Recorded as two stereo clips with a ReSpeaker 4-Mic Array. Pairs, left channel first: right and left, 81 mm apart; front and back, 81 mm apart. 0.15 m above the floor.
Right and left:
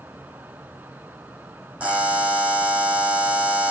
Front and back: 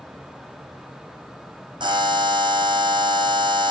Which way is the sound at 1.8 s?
165° left.